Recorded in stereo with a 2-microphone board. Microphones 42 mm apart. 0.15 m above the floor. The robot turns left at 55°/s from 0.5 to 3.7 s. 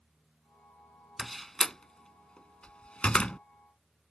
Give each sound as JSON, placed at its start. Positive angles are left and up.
{"t": 1.2, "sound": "a door slam", "side_deg": 0}